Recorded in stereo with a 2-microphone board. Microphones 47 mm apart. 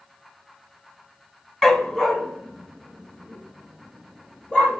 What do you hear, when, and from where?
1.6 s a dog barking: 10° left (ahead or behind), 0.8 m; by 4.8 s 20° left (ahead or behind), 4.5 m